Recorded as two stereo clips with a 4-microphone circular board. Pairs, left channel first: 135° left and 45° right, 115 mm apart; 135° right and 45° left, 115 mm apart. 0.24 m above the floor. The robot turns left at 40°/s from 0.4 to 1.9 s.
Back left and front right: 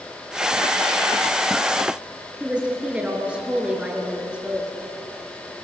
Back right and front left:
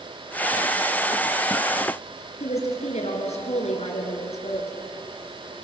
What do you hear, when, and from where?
2.4 s a woman speaking: 125° right, 4 m